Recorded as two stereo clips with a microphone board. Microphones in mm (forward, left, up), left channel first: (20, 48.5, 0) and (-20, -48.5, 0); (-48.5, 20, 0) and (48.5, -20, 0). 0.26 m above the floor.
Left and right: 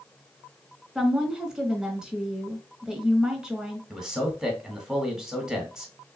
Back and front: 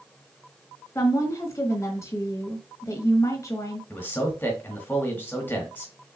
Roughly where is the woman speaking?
Behind.